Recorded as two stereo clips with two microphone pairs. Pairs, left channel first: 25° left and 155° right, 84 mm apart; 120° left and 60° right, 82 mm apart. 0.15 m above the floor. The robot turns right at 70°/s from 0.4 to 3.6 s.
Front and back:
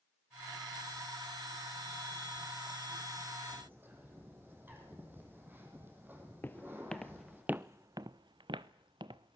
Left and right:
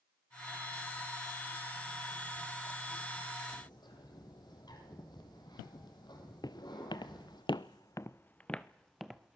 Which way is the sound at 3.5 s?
135° left.